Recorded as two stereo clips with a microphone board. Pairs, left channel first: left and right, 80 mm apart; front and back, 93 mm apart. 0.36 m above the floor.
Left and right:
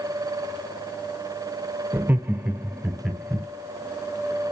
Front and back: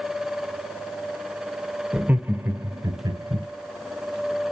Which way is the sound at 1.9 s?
115° right.